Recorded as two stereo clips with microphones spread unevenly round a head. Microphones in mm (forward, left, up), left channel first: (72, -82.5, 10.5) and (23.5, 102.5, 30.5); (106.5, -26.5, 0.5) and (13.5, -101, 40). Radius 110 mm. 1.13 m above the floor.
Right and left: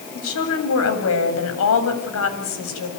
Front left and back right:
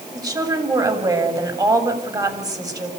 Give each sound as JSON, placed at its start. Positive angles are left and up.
{"t": 0.1, "sound": "a woman speaking", "azimuth_deg": -85, "distance_m": 7.5}